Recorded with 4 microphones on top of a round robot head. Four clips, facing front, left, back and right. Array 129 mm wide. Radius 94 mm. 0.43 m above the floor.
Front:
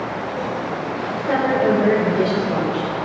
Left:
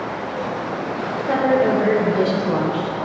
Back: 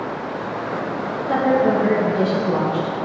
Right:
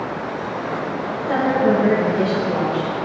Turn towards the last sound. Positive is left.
turn(degrees=115)